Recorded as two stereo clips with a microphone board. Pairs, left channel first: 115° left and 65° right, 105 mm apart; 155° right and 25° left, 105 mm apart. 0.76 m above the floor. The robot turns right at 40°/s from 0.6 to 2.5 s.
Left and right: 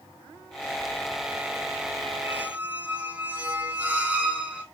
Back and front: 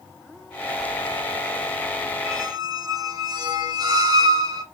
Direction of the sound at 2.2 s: 10° right.